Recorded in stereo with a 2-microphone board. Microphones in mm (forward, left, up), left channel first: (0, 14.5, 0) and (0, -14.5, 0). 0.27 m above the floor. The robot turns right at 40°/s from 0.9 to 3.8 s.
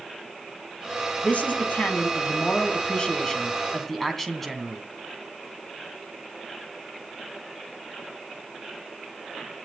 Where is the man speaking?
70° left, 2.5 m; by 4.8 s 175° left, 2.5 m.